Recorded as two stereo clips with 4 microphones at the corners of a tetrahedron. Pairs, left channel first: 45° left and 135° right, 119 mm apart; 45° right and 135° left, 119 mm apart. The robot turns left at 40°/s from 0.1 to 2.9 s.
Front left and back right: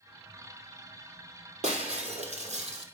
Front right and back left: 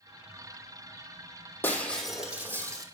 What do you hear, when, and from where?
1.6 s breaking glass: 120° right, 2 m; by 2.8 s 165° right, 2 m